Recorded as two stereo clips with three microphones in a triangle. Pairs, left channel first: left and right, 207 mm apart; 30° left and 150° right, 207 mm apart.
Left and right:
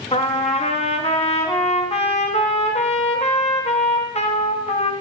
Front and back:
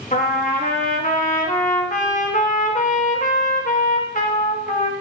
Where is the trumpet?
50° left, 1.2 m.